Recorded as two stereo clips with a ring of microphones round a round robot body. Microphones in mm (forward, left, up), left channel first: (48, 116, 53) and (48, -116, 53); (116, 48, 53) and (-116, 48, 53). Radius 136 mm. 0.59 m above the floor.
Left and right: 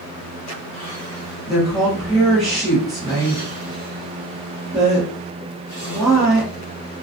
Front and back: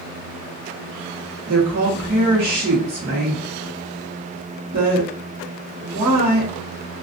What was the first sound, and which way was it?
A woman speaking, straight behind.